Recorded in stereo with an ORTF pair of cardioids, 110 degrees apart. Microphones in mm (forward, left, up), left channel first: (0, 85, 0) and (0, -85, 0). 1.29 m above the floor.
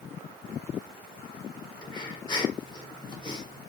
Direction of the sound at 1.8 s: 25° left.